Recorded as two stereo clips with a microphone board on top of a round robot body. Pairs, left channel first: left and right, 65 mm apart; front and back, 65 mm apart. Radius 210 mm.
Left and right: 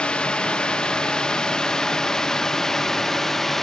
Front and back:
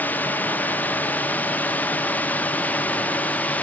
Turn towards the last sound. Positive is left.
turn(degrees=10)